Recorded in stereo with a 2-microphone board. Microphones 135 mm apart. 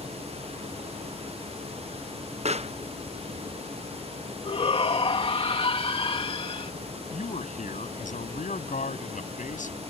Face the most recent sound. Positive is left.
turn(degrees=85)